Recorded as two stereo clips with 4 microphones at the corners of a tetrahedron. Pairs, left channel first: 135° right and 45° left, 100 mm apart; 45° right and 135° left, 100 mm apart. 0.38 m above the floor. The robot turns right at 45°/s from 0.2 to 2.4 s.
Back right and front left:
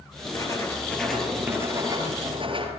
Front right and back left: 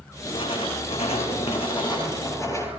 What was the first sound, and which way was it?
Writing, 85° right.